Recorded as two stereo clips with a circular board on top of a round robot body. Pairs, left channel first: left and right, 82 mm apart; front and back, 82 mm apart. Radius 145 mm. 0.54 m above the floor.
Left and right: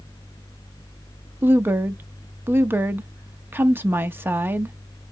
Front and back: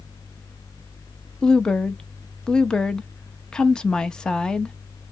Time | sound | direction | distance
1.4 | a woman speaking | 70° right | 0.9 m